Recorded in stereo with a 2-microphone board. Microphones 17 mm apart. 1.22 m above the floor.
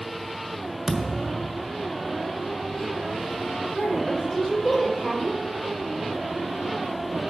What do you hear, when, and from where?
0.9 s a thud: 15° right (ahead or behind), 1.4 m
3.7 s a woman speaking: 20° left (ahead or behind), 4 m